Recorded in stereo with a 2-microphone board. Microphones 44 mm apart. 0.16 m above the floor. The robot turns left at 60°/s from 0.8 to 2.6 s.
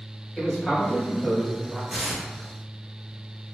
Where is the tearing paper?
15° right (ahead or behind), 1.4 m; by 2.2 s 25° right (ahead or behind), 1.4 m.